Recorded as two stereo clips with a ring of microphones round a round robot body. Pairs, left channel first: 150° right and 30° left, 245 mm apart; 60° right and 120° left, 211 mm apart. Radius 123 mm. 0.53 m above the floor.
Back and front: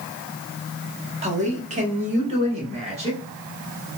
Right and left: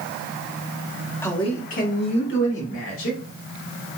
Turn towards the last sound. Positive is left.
turn(degrees=-35)